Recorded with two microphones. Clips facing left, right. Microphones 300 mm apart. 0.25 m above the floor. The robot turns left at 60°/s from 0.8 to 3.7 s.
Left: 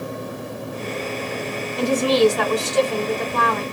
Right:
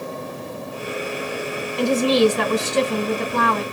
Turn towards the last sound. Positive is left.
turn(degrees=-110)